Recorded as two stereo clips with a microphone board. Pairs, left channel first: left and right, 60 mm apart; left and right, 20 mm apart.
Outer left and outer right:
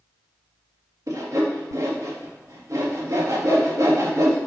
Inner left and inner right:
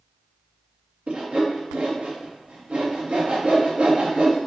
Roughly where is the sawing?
Right.